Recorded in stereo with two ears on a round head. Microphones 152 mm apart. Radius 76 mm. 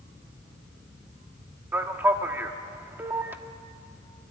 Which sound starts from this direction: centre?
A man speaking, at 1.7 s.